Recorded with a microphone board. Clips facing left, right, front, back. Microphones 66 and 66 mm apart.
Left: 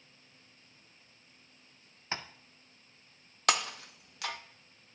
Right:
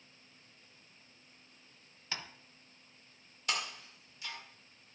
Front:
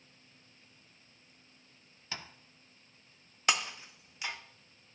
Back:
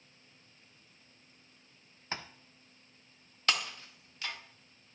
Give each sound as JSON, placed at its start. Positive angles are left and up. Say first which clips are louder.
{"t": 2.1, "sound": "tapping", "louder": "left 4 dB, back 4 dB", "azimuth_deg": 140, "distance_m": 0.6}
{"t": 3.5, "sound": "breaking glass", "louder": "left 8 dB, front 2 dB", "azimuth_deg": 75, "distance_m": 0.6}